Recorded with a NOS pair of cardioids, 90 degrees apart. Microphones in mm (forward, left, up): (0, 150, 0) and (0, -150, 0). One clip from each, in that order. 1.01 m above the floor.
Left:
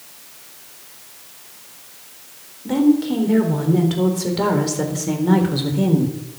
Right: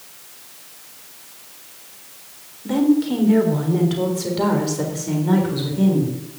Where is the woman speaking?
Straight ahead, 4 m; by 6.2 s 35° left, 4 m.